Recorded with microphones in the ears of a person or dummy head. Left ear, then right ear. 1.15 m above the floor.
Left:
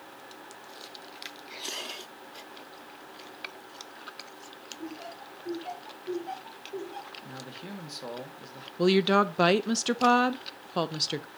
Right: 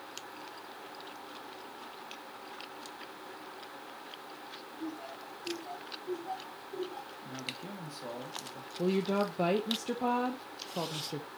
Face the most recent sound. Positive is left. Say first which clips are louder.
# left 8 dB
turn(degrees=50)  # may be behind; listen again after turning